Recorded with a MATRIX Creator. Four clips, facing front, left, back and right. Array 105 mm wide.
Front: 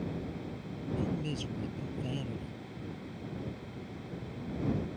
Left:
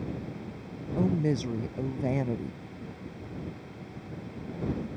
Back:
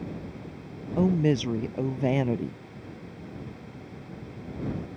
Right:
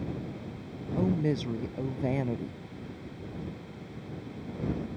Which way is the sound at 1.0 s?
175° left.